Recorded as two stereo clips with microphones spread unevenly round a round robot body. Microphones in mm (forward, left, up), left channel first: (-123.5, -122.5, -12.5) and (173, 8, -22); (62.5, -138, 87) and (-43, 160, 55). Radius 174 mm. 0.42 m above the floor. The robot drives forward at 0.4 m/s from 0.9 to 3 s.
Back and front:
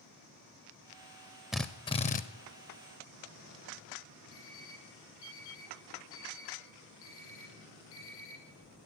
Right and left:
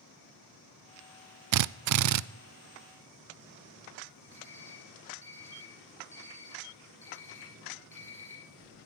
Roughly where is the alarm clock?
Behind right.